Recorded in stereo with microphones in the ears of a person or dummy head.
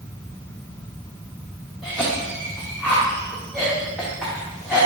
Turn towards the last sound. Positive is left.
turn(degrees=-5)  # may be behind; listen again after turning